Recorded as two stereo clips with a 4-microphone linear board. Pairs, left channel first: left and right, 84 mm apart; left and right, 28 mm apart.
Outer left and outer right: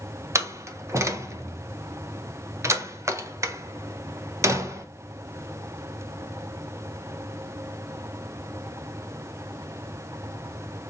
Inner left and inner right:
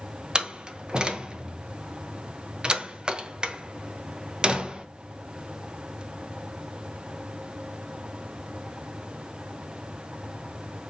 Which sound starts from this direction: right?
A door slam, at 0.3 s.